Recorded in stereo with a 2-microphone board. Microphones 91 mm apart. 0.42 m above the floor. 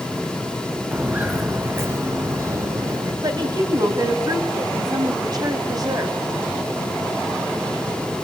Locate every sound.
0.9 s footsteps: 15° right (ahead or behind), 2.5 m; by 3.1 s 35° right (ahead or behind), 4 m
3.2 s a woman speaking: 45° right (ahead or behind), 3 m